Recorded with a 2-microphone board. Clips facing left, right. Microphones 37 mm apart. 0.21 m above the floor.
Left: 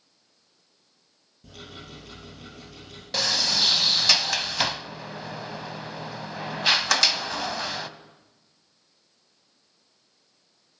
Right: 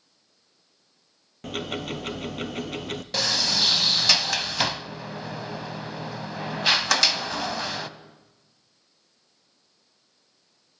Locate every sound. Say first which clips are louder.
1.4 s ticking: right 12 dB; 85° right, 1.1 m
3.1 s a sliding door: even; centre (ahead or behind), 0.6 m